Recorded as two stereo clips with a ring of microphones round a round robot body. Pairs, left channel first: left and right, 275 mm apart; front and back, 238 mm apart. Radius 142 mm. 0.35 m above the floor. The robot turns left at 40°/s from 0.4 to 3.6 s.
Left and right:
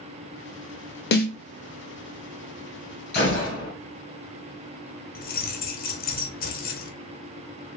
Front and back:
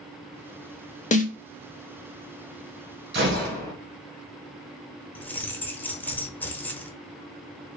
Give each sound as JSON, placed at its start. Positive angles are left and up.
{"t": 1.1, "sound": "a snare drum", "azimuth_deg": 50, "distance_m": 0.7}
{"t": 3.1, "sound": "a gunshot", "azimuth_deg": 145, "distance_m": 2.0}
{"t": 5.2, "sound": "keys jangling", "azimuth_deg": 75, "distance_m": 0.9}